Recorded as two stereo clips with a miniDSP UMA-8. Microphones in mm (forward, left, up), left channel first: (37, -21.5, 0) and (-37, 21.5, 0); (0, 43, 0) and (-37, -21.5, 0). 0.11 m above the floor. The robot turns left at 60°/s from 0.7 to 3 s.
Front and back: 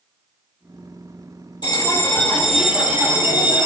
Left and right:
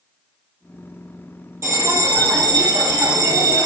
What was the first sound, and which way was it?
A bell, 65° right.